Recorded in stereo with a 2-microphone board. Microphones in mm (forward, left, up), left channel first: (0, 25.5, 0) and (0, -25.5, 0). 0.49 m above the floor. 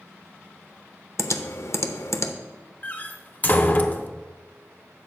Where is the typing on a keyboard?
60° left (ahead or behind), 0.6 m.